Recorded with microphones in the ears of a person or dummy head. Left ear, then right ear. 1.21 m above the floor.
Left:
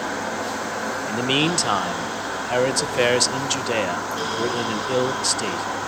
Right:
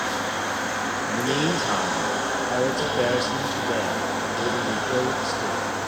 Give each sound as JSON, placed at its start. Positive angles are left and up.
{"t": 1.1, "sound": "a man speaking", "side_deg": 60, "distance_m": 1.0}